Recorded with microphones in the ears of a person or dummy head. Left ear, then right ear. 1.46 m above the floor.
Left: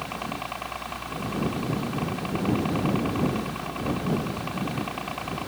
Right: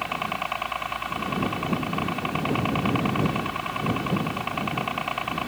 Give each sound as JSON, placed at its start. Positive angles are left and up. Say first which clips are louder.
{"t": 0.0, "sound": "a helicopter", "louder": "right 5 dB", "side_deg": -45}